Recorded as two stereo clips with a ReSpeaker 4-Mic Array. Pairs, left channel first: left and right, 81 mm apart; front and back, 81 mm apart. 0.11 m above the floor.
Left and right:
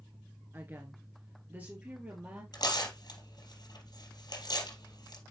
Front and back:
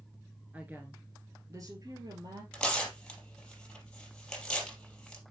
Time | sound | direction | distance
0.5 | a woman speaking | 125° right | 1.3 m
2.5 | tearing paper | 80° left | 3.5 m